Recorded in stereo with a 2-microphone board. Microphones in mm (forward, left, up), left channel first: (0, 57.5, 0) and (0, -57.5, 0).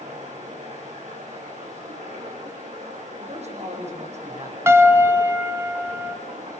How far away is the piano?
About 1.5 m.